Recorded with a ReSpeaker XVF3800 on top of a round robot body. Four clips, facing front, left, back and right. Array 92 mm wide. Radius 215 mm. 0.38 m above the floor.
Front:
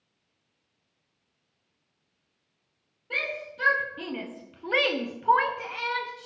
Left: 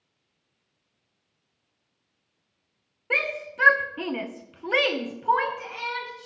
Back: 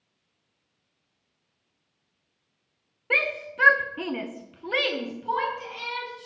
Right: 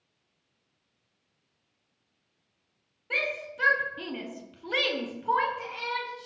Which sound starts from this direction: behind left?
A shout, at 3.1 s.